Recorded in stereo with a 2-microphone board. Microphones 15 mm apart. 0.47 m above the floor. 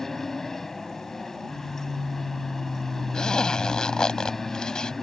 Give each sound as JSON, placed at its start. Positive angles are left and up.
{"t": 0.0, "sound": "an aircraft", "side_deg": 20}
{"t": 3.1, "sound": "a zipper", "side_deg": 65}